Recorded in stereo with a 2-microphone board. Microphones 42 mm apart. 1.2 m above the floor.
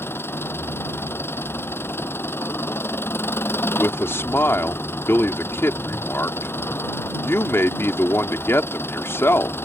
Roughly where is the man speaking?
Left.